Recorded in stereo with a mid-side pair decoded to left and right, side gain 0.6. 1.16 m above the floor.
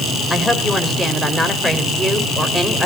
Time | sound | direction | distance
0.3 | a woman speaking | straight ahead | 4.5 m